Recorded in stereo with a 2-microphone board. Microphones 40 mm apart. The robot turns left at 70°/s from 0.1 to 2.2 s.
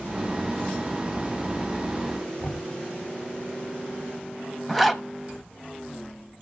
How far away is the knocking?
About 1.7 m.